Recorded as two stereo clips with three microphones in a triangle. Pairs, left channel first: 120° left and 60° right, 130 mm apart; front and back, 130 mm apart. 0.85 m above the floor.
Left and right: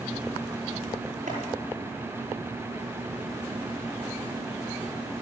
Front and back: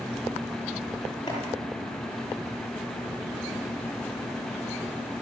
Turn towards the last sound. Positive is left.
turn(degrees=-60)